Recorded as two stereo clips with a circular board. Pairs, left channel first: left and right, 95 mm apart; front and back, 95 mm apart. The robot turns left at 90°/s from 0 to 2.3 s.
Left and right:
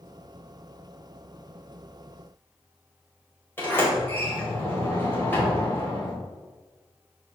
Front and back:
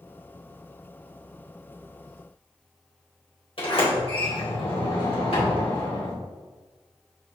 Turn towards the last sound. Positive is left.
turn(degrees=20)